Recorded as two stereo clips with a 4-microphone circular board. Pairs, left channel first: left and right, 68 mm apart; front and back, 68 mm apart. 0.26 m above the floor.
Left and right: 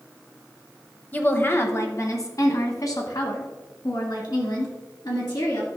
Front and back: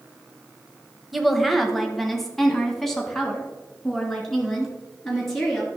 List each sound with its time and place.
1.1 s a woman speaking: 95° left, 1.0 m; by 5.7 s 85° left, 3.5 m